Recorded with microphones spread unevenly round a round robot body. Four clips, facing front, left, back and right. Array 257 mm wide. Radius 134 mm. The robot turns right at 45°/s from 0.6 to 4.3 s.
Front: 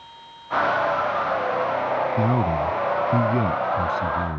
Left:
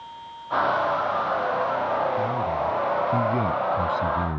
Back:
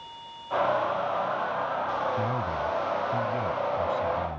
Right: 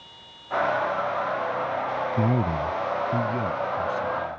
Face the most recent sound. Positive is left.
turn(degrees=50)